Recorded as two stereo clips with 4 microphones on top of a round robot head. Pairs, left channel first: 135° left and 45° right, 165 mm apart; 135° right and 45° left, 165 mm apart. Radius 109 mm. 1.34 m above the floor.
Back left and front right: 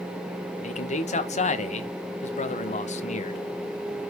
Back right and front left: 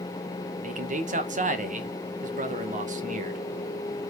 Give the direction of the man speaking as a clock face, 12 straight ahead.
9 o'clock.